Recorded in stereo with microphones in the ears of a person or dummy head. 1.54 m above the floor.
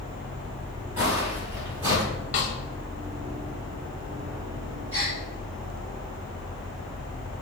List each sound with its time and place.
1.0 s footsteps: 15° right (ahead or behind), 1.6 m; by 2.0 s 25° right (ahead or behind), 2 m
2.3 s a snare drum: 35° left (ahead or behind), 0.6 m
4.9 s a gasp: 35° right (ahead or behind), 2.0 m